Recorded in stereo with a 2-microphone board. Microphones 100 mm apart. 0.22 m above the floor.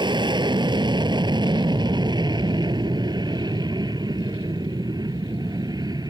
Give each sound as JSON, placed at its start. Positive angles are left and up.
{"t": 0.0, "sound": "an aircraft", "side_deg": -50}